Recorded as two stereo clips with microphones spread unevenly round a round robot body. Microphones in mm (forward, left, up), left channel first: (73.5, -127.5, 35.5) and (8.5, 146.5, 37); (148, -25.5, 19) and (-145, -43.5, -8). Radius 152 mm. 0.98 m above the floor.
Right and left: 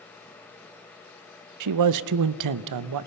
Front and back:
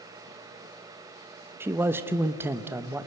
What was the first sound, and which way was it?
A man speaking, 105° left.